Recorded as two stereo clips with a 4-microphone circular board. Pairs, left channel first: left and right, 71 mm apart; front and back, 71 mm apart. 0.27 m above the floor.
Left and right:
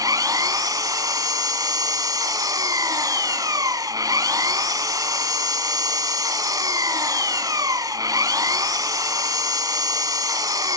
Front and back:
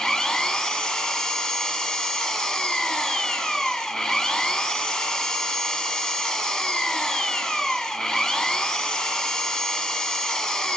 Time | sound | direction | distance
0.0 | an engine running | 80° right | 1.5 m